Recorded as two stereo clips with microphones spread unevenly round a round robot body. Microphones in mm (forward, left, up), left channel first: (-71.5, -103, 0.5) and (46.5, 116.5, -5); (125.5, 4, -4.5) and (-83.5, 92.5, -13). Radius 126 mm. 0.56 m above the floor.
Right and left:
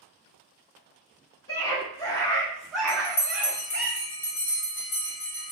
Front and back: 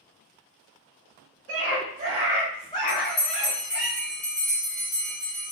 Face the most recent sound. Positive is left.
turn(degrees=-80)